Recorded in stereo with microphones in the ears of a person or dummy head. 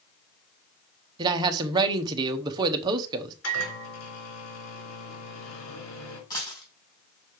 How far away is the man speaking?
About 0.9 m.